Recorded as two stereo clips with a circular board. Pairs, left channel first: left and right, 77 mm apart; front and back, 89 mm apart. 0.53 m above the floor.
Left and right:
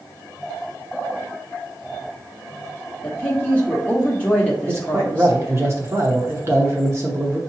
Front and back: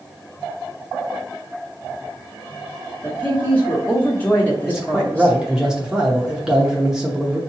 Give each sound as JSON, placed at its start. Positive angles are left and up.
{"t": 3.0, "sound": "a woman speaking", "azimuth_deg": 45, "distance_m": 0.9}
{"t": 4.7, "sound": "a man speaking", "azimuth_deg": -100, "distance_m": 0.7}